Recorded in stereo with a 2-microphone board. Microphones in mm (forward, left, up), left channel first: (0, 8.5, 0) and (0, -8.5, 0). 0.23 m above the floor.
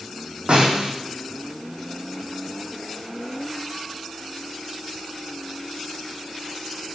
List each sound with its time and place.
0.5 s a snare drum: 80° right, 4 m